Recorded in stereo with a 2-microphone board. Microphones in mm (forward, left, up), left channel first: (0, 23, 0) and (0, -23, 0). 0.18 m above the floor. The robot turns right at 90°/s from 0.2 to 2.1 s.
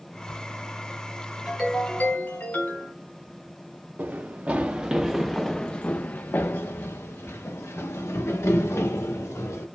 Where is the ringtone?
10° right, 2.5 m; by 2.9 s 45° left, 2.5 m.